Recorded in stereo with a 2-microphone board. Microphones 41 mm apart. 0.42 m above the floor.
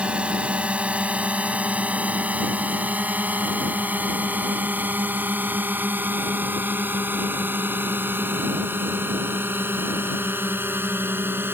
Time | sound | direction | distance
0.0 | a drone | 30° right (ahead or behind) | ?